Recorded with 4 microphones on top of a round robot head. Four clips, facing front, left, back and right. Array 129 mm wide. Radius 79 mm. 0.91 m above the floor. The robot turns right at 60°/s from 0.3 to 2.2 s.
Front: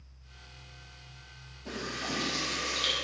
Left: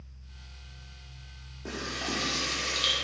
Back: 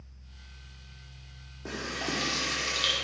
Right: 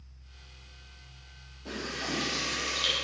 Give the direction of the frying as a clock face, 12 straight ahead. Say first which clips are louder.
Even, back 2 dB; 7 o'clock.